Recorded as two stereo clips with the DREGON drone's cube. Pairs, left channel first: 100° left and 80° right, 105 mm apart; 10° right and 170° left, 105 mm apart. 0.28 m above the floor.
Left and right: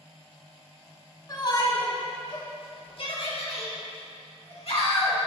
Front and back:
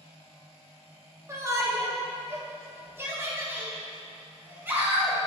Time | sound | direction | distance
1.3 | a shout | 125° left | 1.4 m